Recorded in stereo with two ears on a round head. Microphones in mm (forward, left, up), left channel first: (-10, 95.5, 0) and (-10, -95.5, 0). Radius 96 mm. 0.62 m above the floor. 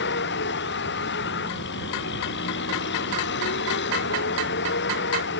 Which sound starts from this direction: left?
A vehicle, at 0.0 s.